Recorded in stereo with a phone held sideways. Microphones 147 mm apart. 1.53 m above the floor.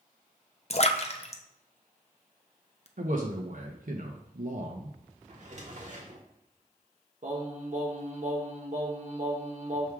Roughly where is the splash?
Left.